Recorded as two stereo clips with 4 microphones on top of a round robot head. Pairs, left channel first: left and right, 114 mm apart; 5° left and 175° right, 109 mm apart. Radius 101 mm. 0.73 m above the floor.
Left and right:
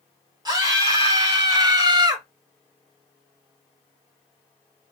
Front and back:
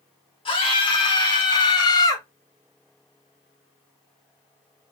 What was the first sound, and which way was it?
A scream, 35° right.